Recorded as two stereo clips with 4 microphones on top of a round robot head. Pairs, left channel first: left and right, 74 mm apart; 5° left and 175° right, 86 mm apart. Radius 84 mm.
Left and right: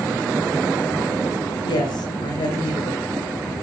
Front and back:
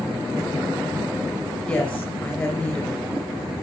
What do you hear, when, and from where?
1.6 s a woman speaking: 75° left, 4.5 m